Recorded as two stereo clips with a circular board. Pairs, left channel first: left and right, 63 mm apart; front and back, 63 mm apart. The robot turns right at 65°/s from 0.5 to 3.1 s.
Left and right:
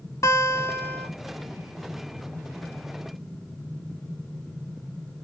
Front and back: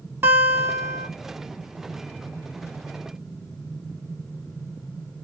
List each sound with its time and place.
0.2 s a guitar: 125° left, 0.5 m; by 1.1 s 165° left, 0.5 m